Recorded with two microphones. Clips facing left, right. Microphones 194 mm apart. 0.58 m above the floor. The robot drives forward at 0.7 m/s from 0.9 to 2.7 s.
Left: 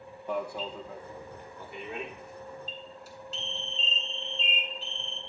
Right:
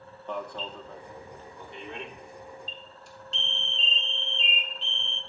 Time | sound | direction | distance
0.3 | an alarm | 10° left (ahead or behind) | 0.8 m